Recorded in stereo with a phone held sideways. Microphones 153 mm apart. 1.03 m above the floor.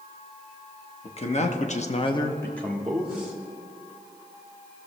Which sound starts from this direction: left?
A man speaking, at 1.0 s.